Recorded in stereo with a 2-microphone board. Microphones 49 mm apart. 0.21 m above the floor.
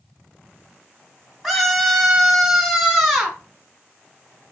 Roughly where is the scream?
Centre.